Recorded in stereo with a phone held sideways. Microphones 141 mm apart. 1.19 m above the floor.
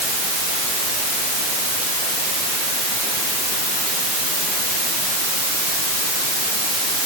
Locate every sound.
Only background noise.